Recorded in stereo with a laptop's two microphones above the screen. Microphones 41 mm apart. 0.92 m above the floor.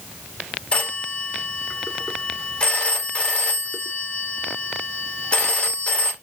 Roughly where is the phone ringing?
Left.